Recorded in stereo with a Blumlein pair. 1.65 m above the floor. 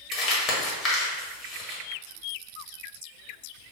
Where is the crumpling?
25° left, 0.9 m.